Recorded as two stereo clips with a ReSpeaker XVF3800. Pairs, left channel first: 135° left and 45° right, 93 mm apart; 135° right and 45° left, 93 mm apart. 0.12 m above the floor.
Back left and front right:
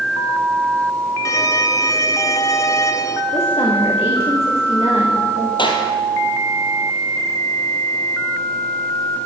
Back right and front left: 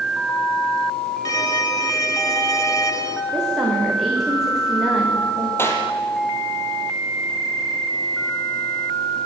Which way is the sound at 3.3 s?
130° left.